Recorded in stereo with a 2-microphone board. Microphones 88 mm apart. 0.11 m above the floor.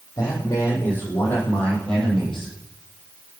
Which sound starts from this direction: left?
A man speaking, at 0.2 s.